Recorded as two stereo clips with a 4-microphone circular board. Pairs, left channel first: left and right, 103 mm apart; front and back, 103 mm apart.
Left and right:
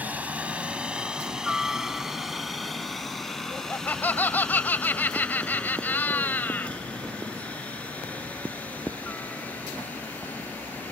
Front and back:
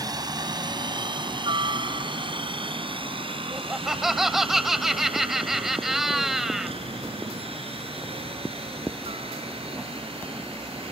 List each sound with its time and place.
0.0 s a helicopter: 160° right; by 10.9 s 165° left
3.5 s laughter: 100° left